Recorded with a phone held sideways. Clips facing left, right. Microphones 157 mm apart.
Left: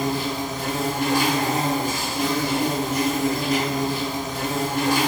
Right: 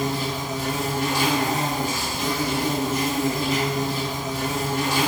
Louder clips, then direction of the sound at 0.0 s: Left 2 dB; 55° left (ahead or behind).